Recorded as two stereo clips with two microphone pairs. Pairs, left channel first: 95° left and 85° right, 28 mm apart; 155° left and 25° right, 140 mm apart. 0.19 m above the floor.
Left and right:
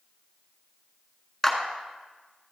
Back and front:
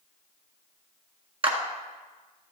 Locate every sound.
1.4 s a clap: 15° left, 1.7 m